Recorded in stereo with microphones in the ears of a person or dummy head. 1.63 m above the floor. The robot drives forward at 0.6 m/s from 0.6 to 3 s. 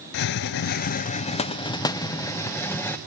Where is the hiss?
65° left (ahead or behind), 0.5 m; by 3.0 s 20° left (ahead or behind), 1.6 m.